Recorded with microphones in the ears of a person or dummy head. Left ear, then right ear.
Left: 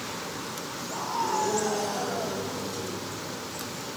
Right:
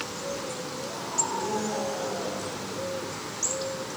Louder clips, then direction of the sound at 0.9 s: Left 4 dB; 35° left (ahead or behind).